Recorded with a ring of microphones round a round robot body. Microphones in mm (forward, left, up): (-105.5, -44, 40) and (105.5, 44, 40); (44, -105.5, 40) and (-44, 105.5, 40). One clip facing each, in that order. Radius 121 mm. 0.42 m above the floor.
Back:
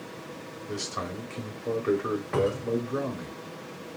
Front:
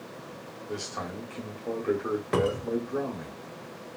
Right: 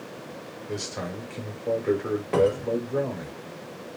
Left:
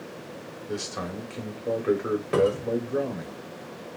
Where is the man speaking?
Straight behind, 0.8 m.